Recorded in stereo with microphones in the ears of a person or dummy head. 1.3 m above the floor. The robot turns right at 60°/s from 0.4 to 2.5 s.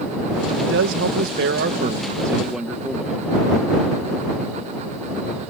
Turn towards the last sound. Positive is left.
turn(degrees=0)